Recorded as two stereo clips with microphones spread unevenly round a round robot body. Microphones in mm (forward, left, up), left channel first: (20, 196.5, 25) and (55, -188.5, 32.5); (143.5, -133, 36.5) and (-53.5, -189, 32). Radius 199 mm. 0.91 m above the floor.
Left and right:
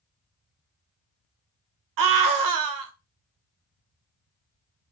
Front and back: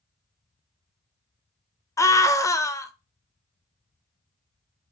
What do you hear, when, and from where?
2.0 s a scream: 60° right, 0.6 m